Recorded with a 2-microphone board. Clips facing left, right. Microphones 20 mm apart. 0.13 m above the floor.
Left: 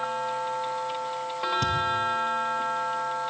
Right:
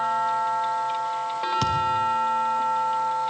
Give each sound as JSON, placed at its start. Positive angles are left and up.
{"t": 1.6, "sound": "a thud", "side_deg": -70, "distance_m": 4.0}